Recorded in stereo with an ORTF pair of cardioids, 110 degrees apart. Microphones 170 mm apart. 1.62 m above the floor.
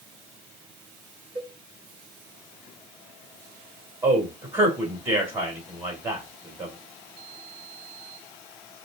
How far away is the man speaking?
About 3 m.